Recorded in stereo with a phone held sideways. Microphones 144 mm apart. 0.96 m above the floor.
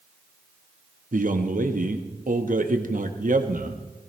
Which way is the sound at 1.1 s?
70° right (ahead or behind).